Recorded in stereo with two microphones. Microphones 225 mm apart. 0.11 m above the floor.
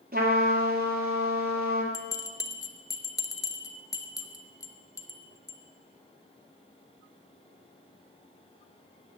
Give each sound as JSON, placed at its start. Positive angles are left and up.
{"t": 0.1, "sound": "a trumpet", "side_deg": -45, "distance_m": 2.0}
{"t": 1.9, "sound": "a bell", "side_deg": 15, "distance_m": 0.6}